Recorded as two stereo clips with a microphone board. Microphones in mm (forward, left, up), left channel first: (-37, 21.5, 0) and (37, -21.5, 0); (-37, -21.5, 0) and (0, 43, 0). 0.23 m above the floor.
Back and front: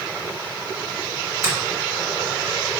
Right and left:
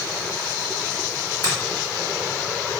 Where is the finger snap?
85° right, 1.9 m.